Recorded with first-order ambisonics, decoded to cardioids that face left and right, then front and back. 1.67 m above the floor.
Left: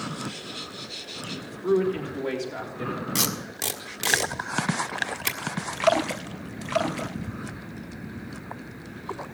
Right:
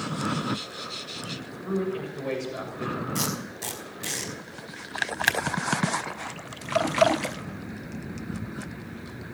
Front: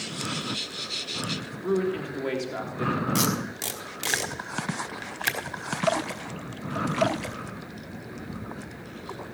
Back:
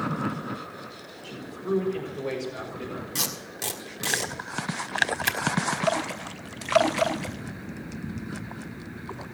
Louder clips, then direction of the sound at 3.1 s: Left 3 dB, front 4 dB; 75° left.